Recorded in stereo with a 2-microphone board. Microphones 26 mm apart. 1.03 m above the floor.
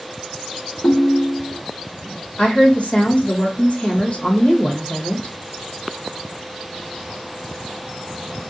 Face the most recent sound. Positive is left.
turn(degrees=50)  # may be behind; listen again after turning